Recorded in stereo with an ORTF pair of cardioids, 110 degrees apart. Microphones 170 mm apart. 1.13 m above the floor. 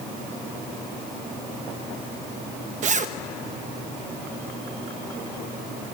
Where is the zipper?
45° right, 1.0 m.